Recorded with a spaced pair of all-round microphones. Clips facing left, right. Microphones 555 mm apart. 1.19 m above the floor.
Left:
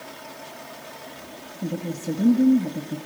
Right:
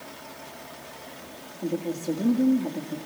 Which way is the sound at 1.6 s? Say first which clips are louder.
Right 1 dB; 45° left (ahead or behind).